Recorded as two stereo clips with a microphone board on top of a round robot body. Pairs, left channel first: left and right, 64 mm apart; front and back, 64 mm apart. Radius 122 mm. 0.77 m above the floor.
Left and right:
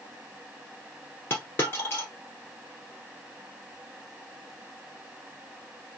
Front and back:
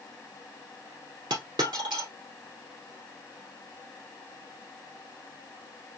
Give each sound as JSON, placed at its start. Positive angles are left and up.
{"t": 1.3, "sound": "a dropped coin", "azimuth_deg": 155, "distance_m": 0.9}